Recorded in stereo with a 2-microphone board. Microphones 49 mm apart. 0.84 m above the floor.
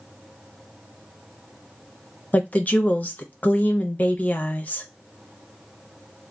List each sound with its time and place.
2.3 s a woman speaking: 35° left (ahead or behind), 0.7 m